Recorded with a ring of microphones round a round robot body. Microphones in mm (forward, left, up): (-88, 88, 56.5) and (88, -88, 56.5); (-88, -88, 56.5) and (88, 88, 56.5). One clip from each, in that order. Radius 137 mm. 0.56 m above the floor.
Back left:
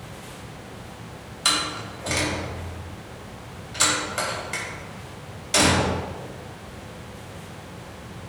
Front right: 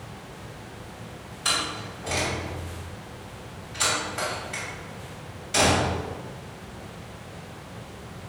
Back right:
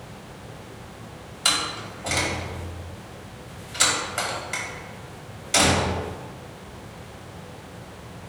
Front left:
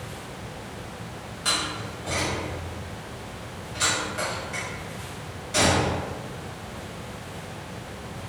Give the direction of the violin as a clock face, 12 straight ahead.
I don't hear a violin.